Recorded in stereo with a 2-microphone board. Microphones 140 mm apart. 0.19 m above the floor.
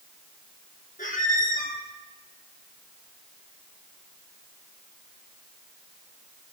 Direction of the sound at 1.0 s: 75° left (ahead or behind).